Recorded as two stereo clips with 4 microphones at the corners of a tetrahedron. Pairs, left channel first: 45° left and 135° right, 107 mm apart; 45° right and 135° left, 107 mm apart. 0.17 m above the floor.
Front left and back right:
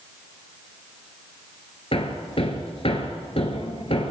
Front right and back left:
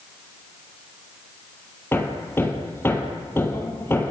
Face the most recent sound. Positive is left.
turn(degrees=20)